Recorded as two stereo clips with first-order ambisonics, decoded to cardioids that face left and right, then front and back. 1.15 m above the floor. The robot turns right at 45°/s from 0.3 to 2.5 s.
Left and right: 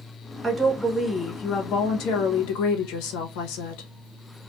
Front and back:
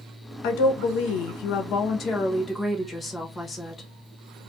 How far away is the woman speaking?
About 0.8 m.